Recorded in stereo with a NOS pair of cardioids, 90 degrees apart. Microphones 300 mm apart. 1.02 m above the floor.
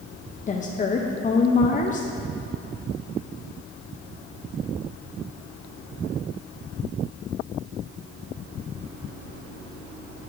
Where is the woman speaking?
25° left, 0.5 m.